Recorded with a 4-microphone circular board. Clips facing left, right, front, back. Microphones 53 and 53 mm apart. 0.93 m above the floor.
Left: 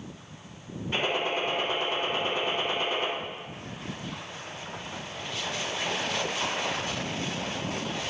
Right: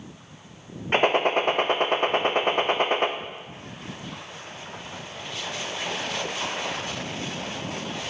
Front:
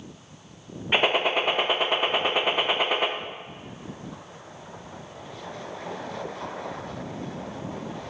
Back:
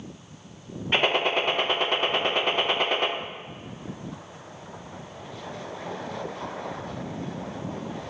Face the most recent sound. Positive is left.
turn(degrees=-80)